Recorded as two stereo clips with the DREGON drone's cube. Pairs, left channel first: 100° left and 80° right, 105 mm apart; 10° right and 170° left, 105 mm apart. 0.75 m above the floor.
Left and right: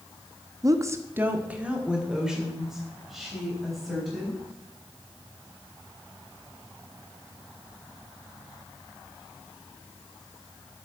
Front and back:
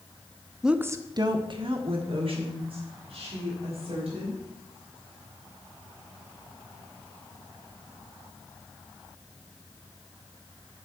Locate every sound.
0.6 s a woman speaking: 105° right, 0.7 m; by 4.4 s 170° right, 4.5 m